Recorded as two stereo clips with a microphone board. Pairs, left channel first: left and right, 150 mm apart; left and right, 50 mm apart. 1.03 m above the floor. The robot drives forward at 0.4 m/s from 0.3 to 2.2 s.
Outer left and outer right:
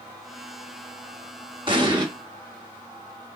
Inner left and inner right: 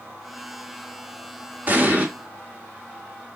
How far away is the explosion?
About 0.8 m.